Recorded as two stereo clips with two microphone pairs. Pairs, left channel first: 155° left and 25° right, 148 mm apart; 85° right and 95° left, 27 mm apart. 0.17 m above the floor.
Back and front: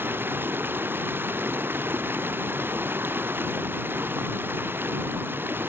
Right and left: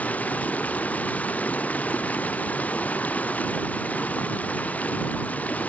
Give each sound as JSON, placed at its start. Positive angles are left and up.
{"t": 0.0, "sound": "running water", "azimuth_deg": -100}